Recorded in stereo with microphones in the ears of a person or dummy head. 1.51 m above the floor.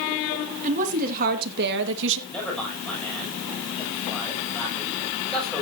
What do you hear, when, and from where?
0.6 s a woman speaking: 45° right (ahead or behind), 2.5 m; by 2.2 s 75° right (ahead or behind), 1.8 m
2.3 s a man speaking: 5° left (ahead or behind), 7.5 m